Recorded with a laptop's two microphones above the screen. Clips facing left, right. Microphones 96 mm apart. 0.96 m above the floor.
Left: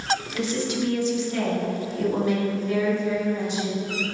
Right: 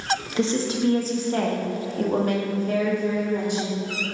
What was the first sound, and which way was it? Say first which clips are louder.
A woman speaking: right 2 dB; 25° right (ahead or behind).